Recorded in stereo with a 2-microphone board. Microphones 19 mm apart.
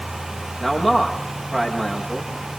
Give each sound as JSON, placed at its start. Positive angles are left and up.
{"t": 0.6, "sound": "a man speaking", "side_deg": -15, "distance_m": 8.0}